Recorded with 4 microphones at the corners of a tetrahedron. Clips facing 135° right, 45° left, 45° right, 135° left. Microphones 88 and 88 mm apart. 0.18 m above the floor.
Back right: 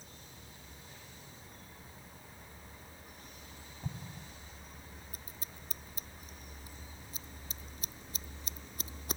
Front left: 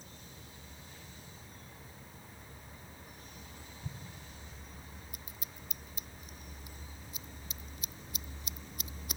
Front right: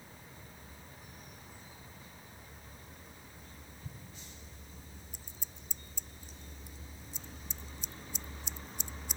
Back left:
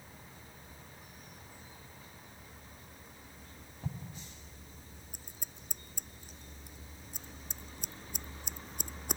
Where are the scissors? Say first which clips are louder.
Even, back left 1 dB; 170° left.